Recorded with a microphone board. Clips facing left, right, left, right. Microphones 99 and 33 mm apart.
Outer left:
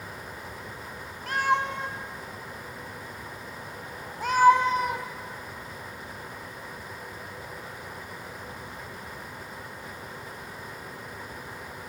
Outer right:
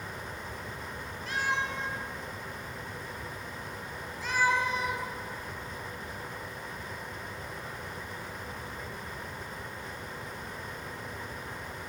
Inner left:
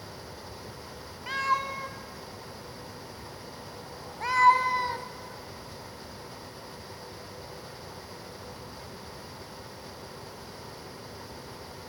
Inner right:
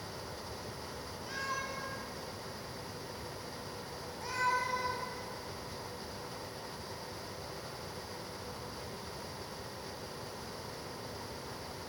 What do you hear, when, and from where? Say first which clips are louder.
1.3 s a cat meowing: outer left 7 dB, inner left 11 dB; 60° left (ahead or behind), 1.3 m